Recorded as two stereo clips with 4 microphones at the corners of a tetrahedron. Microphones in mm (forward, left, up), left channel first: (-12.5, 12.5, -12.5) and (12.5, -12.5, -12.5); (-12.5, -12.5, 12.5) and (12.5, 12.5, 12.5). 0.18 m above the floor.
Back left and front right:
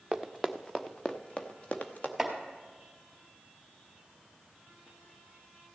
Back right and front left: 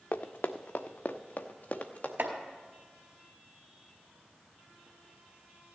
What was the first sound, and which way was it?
Running footsteps, 125° right.